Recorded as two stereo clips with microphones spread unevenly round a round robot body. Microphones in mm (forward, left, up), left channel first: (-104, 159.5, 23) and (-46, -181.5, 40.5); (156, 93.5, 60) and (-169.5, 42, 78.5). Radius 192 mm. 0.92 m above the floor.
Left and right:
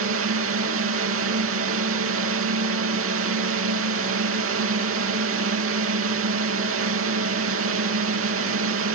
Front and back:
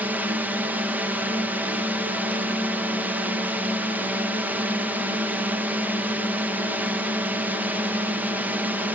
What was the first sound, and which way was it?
A drone, 85° right.